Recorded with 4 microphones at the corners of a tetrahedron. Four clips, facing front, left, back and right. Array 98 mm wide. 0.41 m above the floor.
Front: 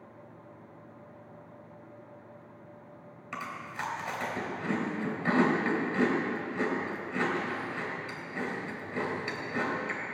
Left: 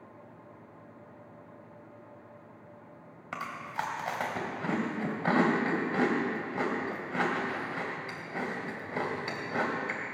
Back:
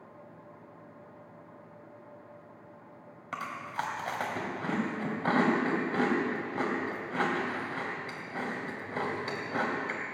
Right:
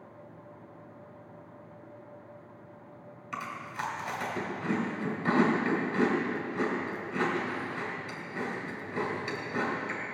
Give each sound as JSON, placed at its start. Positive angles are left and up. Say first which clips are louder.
{"t": 3.3, "sound": "chewing", "louder": "left 1 dB, back 2 dB", "azimuth_deg": 125, "distance_m": 3.0}